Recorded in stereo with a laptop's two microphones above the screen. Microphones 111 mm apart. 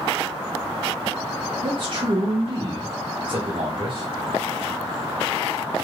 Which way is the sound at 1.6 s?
50° right (ahead or behind).